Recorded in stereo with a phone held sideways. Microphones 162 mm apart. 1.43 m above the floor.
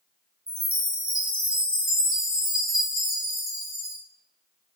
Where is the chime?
65° right (ahead or behind), 0.8 m.